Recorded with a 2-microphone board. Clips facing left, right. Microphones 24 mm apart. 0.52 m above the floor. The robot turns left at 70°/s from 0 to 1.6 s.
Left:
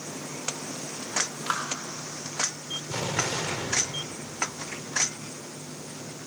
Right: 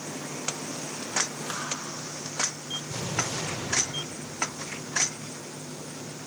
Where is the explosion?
45° left (ahead or behind), 2 m.